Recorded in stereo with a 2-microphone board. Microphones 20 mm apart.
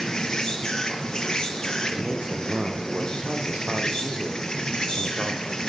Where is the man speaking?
80° right, 6.5 m.